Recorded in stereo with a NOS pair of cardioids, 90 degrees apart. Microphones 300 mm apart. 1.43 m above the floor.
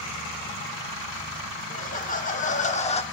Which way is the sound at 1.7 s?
25° left.